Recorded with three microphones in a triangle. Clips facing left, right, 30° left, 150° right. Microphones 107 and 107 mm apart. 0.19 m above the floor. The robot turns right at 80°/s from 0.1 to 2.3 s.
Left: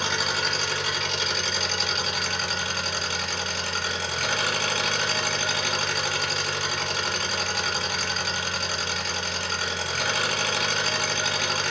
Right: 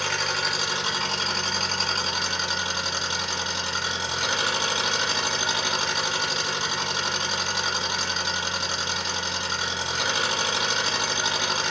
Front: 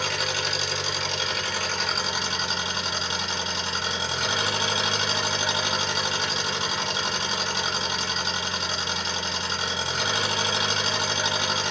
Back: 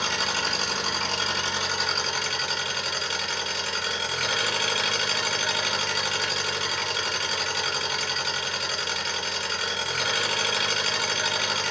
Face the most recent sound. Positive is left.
turn(degrees=-30)